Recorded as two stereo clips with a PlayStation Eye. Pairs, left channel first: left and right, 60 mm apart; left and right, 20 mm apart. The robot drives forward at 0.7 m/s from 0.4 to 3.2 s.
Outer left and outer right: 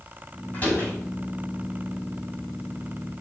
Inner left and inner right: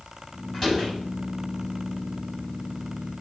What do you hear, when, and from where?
0.5 s a door slam: 30° left (ahead or behind), 5.5 m